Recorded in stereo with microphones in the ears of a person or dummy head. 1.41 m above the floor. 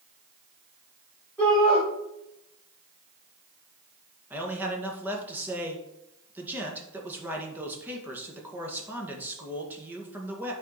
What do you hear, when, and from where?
1.4 s a shout: 5° left (ahead or behind), 5 m
4.3 s a man speaking: 10° right (ahead or behind), 1.8 m